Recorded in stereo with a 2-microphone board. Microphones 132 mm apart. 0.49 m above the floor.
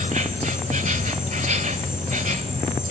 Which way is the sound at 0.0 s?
70° right (ahead or behind).